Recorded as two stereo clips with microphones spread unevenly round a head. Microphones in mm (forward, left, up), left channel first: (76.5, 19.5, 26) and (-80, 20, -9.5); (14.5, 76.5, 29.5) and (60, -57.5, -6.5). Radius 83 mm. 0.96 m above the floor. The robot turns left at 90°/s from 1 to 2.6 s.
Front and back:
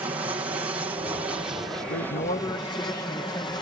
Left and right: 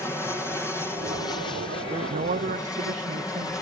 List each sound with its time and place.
0.0 s an aircraft: 170° right; by 3.6 s 45° left
1.8 s a man speaking: 10° right; by 3.6 s 80° right